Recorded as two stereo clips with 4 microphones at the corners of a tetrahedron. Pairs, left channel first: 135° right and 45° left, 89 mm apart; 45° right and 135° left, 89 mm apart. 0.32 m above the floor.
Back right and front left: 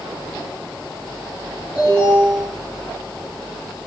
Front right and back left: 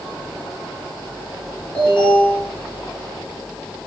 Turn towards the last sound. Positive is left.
turn(degrees=35)